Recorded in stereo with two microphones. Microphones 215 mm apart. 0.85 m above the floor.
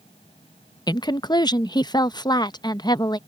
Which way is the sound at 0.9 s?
20° left (ahead or behind).